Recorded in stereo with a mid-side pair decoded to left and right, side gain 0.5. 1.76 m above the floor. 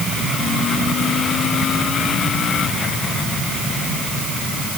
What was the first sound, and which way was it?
Only background noise.